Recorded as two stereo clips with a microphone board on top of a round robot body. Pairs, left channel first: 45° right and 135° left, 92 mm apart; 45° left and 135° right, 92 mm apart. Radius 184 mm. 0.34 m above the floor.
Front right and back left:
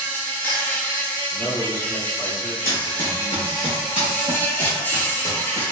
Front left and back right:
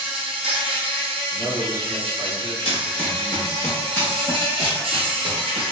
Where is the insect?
115° right, 0.7 m.